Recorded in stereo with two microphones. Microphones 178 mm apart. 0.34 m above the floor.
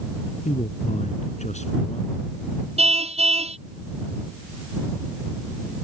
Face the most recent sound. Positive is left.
turn(degrees=-35)  # may be behind; listen again after turning